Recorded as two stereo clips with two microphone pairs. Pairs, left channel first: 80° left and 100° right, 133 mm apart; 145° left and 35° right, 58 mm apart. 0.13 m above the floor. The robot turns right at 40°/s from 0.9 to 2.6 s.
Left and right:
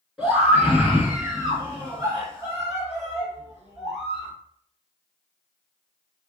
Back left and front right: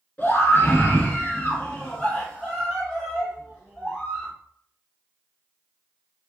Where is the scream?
165° left, 1.7 m; by 4.3 s 125° right, 1.7 m.